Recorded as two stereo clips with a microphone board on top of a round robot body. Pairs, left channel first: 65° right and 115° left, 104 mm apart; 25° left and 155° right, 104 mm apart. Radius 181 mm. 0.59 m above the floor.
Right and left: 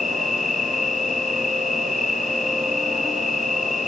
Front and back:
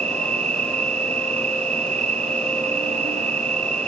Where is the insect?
155° right, 2 m.